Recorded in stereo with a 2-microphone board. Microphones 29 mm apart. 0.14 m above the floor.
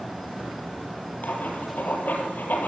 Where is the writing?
65° left (ahead or behind), 4.5 m.